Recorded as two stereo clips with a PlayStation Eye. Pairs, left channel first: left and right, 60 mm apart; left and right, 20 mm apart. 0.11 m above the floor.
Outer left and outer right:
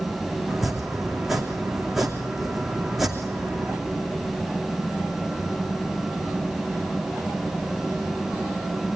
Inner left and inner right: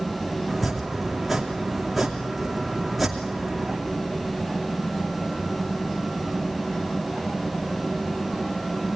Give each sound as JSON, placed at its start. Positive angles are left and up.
{"t": 0.5, "sound": "chopping", "side_deg": 0, "distance_m": 2.5}